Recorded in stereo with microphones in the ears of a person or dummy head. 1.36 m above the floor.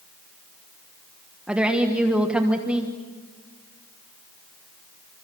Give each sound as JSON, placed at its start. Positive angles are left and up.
{"t": 1.5, "sound": "a woman speaking", "side_deg": -15, "distance_m": 1.3}